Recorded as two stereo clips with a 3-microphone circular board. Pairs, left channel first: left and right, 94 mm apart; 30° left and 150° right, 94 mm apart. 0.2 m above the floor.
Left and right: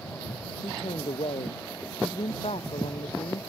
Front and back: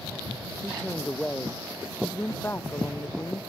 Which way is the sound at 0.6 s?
115° left.